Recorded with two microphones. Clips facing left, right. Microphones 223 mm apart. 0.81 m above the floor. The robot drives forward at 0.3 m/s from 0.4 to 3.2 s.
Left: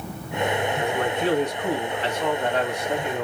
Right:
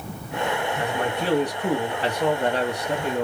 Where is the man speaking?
35° right (ahead or behind), 1.3 m.